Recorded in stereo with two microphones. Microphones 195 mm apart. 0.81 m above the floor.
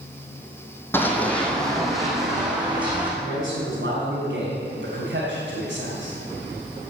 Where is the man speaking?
65° right (ahead or behind), 4 m.